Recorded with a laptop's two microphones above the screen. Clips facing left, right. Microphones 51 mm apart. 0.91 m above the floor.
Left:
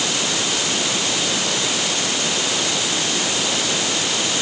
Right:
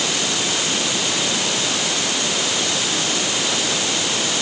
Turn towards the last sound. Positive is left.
No sound to turn to.